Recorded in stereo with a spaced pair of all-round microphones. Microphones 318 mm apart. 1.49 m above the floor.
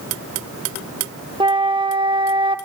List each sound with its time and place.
1.4 s a flute: 15° right (ahead or behind), 1.2 m